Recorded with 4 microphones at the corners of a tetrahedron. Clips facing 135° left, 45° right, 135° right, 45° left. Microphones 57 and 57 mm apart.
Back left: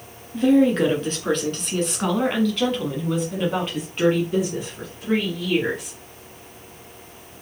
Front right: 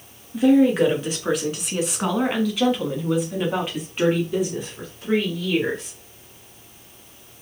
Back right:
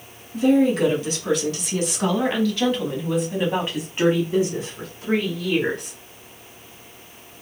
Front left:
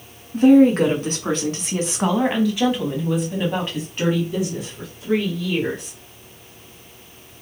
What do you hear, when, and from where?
0.3 s a woman speaking: 35° left, 1.9 m; by 6.0 s 135° right, 1.8 m